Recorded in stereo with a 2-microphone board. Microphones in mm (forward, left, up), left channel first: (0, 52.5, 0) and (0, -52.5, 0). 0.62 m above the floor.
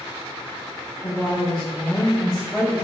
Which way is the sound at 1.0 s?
25° left (ahead or behind).